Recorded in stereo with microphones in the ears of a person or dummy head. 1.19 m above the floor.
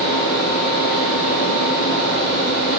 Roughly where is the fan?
Left.